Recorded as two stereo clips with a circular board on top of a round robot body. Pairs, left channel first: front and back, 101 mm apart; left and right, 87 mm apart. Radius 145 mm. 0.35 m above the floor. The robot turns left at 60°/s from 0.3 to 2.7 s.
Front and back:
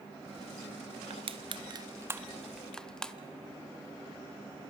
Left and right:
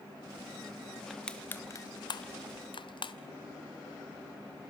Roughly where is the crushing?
Behind.